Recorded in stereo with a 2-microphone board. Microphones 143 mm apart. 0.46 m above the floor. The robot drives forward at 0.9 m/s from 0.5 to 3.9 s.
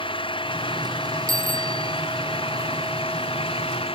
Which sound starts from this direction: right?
A bicycle bell, at 1.3 s.